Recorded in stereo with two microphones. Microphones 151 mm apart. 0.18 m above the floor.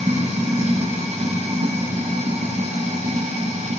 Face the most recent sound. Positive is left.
turn(degrees=-50)  # may be behind; listen again after turning